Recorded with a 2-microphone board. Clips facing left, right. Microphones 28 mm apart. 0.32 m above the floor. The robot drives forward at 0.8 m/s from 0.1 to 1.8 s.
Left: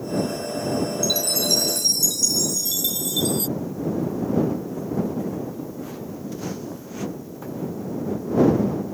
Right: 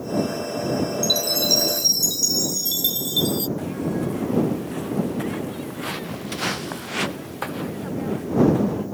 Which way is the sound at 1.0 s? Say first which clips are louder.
Right 2 dB; 20° right (ahead or behind).